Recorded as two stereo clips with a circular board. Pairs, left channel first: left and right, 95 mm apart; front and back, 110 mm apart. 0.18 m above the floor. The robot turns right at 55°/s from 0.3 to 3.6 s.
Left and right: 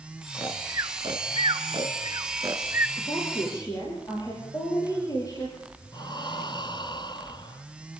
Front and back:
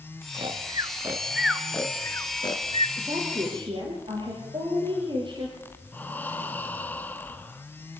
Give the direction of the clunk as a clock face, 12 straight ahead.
No clunk in this recording.